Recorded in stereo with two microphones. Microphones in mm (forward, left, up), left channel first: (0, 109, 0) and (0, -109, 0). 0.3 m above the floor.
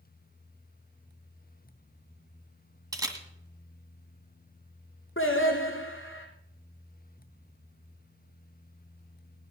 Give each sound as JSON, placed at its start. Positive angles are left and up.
{"t": 2.9, "sound": "a camera shutter", "side_deg": -15, "distance_m": 2.0}
{"t": 5.2, "sound": "singing", "side_deg": 70, "distance_m": 3.0}